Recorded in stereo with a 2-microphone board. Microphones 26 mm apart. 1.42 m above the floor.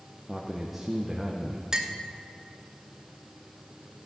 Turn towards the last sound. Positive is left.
turn(degrees=-20)  # may be behind; listen again after turning